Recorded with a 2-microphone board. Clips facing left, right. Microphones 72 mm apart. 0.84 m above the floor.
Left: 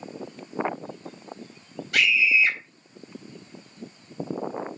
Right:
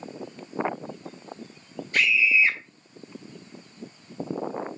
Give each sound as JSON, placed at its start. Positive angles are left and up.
{"t": 1.9, "sound": "a scream", "side_deg": 75, "distance_m": 4.5}